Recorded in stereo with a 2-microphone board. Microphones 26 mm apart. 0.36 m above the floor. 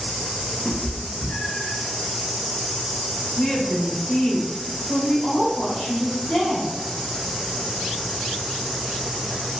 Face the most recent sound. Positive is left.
turn(degrees=30)  # may be behind; listen again after turning